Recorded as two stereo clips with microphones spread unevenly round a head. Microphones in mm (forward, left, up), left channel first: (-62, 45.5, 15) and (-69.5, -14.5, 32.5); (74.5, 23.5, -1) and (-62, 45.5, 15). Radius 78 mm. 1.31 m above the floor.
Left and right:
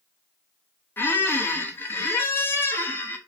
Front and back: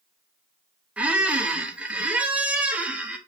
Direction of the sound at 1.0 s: 125° left.